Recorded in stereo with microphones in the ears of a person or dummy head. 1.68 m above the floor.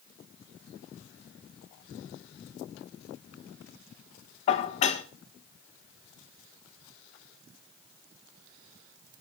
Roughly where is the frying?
I don't hear frying.